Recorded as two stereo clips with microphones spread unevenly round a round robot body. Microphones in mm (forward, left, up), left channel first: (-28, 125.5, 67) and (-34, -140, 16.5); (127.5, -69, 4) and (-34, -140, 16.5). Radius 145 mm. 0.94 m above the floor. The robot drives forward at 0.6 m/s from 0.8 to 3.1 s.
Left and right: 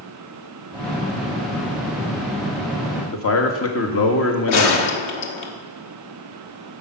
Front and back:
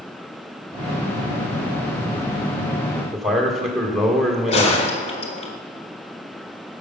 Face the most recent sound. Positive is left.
turn(degrees=75)